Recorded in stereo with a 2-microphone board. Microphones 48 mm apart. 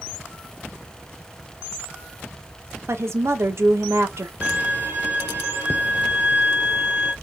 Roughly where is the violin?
Right.